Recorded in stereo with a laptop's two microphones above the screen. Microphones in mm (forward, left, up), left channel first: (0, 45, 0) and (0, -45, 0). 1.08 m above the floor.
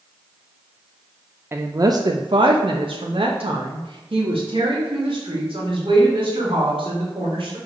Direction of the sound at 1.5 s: 25° right (ahead or behind).